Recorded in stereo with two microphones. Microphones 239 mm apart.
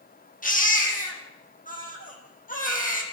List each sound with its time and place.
0.4 s a baby crying: 35° left (ahead or behind), 4.5 m